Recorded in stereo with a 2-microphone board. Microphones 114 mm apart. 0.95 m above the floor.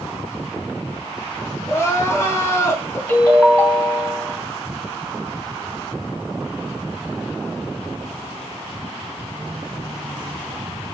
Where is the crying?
25° left (ahead or behind), 1.5 m.